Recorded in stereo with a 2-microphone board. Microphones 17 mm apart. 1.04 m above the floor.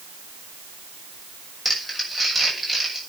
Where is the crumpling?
5° left (ahead or behind), 6.5 m.